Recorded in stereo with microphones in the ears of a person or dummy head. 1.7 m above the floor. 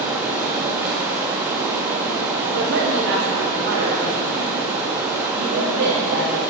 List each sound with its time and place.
0.0 s running water: 15° right (ahead or behind), 1.4 m
2.5 s a man speaking: 75° right (ahead or behind), 4 m